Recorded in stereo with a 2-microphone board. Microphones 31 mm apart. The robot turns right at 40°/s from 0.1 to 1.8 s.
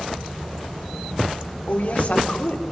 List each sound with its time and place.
1.7 s a woman speaking: 55° left (ahead or behind), 3 m; by 2.6 s 60° left (ahead or behind), 3 m